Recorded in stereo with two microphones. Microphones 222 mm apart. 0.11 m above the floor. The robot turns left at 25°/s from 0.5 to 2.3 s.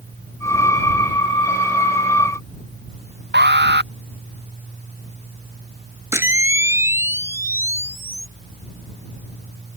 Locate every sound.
3.3 s an alarm: 50° right (ahead or behind)
6.1 s a camera shutter: 10° right (ahead or behind)